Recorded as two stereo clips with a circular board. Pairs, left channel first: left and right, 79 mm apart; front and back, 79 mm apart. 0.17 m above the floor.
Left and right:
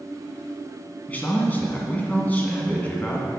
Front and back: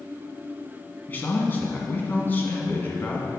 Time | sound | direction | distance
1.1 | a man speaking | 40° left | 1.7 m